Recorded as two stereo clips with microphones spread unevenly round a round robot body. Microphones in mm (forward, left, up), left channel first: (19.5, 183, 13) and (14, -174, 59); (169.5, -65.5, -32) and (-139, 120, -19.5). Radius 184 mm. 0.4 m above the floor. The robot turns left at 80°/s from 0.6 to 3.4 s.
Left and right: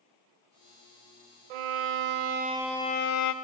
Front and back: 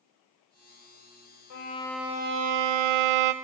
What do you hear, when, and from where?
1.5 s a violin: 85° right, 0.5 m; by 3.3 s 130° left, 0.5 m